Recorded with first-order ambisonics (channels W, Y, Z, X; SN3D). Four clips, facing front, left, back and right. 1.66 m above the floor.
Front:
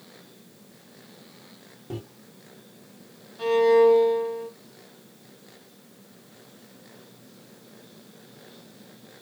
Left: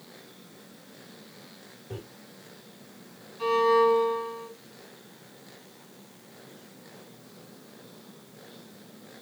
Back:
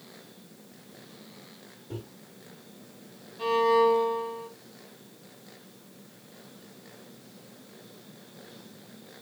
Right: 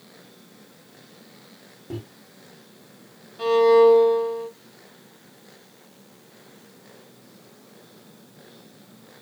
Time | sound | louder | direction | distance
1.9 | a microwave | right 6 dB, front 4 dB | 45° right | 3 m
3.4 | a violin | right 7 dB, front 4 dB | 65° right | 3.5 m